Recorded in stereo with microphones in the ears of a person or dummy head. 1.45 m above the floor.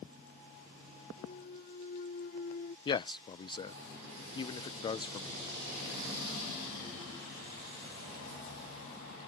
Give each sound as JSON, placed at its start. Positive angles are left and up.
{"t": 1.2, "sound": "a clunk", "side_deg": 45}
{"t": 2.9, "sound": "a man speaking", "side_deg": 25}